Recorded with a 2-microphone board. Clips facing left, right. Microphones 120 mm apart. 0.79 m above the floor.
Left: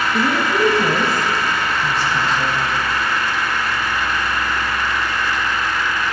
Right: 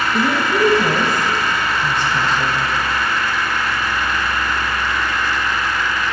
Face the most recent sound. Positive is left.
turn(degrees=5)  # may be behind; listen again after turning